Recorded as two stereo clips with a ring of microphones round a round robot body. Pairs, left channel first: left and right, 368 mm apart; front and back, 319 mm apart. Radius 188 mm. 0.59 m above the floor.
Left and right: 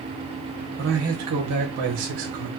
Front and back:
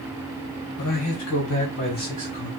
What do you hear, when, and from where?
0.8 s a man speaking: 30° right, 3 m; by 2.5 s 75° right, 3.5 m